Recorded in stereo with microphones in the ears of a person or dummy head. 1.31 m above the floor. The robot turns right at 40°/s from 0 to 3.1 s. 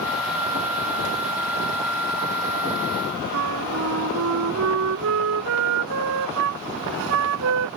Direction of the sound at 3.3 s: 70° right (ahead or behind).